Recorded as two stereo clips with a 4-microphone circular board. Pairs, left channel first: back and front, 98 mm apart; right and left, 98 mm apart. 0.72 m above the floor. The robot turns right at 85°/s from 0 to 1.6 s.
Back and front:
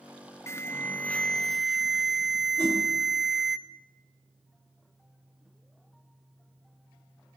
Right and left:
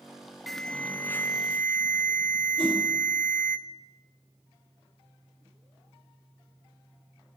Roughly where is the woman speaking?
No woman speaking in this recording.